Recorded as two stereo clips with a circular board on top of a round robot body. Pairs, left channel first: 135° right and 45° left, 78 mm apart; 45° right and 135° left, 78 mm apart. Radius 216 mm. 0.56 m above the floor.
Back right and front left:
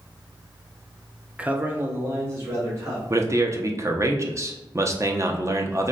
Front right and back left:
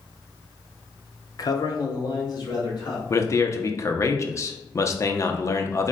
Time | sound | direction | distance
1.4 | a man speaking | 30° right | 0.7 m
3.1 | a man speaking | straight ahead | 0.8 m